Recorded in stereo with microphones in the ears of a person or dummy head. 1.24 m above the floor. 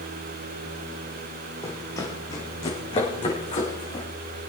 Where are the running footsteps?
15° left (ahead or behind), 3 m; by 4.0 s 30° left (ahead or behind), 5.5 m.